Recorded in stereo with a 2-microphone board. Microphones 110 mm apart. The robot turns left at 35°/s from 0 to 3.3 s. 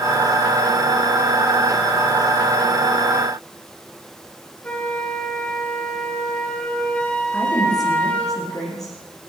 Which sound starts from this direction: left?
A woman speaking, at 7.3 s.